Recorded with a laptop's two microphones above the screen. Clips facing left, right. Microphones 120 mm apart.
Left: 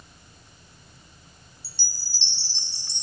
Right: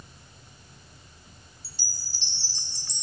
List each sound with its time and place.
1.6 s a chime: 30° left (ahead or behind), 1.2 m